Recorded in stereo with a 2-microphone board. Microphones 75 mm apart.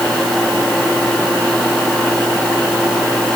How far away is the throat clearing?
No throat clearing in this recording.